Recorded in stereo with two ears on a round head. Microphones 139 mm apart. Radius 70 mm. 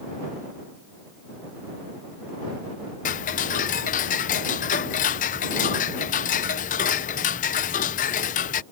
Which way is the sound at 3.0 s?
50° left (ahead or behind).